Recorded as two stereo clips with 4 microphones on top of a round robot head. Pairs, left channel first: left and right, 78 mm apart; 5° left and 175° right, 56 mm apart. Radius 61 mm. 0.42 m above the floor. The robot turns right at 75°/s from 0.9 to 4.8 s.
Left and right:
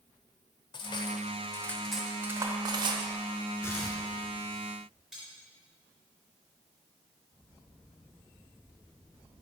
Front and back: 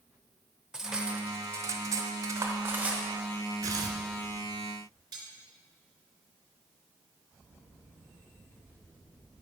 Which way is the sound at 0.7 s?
105° left.